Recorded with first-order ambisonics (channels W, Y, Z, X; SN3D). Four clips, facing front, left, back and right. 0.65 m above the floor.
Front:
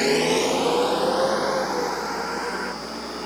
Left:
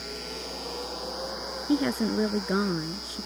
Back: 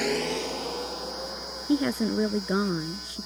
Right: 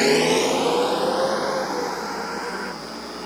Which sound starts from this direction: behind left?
A woman speaking, at 1.7 s.